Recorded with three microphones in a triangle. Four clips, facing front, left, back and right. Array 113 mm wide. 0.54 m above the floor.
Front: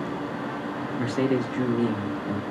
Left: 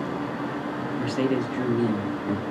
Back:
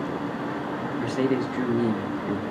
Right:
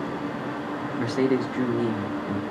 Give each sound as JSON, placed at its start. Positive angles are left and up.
{"t": 1.0, "sound": "a man speaking", "azimuth_deg": -70, "distance_m": 0.7}